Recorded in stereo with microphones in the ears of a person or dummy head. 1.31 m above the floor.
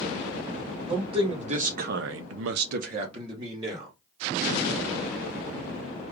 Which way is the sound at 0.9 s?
30° right (ahead or behind).